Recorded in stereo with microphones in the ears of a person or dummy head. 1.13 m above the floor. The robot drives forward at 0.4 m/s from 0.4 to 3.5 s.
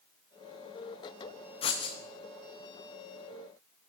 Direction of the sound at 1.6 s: 30° left (ahead or behind).